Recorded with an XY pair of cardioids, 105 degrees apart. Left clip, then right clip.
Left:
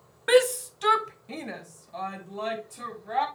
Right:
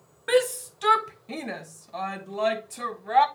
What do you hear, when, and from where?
0.3 s a shout: 25° left, 0.8 m; by 3.3 s 40° right, 2.5 m